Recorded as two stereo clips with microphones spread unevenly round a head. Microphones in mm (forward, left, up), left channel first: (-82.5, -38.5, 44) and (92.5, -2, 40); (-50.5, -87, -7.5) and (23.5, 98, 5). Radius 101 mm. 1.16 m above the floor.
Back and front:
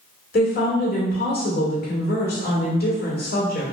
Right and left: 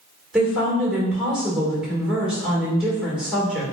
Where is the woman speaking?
155° left, 1.6 m.